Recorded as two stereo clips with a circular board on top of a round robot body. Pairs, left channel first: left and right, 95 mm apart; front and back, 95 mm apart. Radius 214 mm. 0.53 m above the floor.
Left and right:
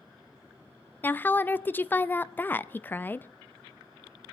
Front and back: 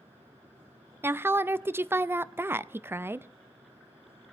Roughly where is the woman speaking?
Behind left.